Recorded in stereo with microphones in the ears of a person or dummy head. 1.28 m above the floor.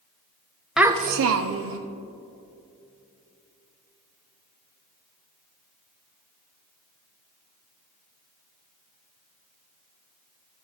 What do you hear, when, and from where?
0.8 s a child speaking: 5° left (ahead or behind), 0.7 m; by 1.8 s 70° right (ahead or behind), 1.2 m